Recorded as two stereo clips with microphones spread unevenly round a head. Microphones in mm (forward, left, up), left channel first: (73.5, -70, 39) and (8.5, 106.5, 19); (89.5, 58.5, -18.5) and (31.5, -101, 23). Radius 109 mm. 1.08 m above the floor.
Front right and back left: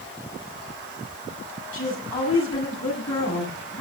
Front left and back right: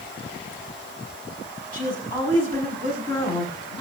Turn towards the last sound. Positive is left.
turn(degrees=0)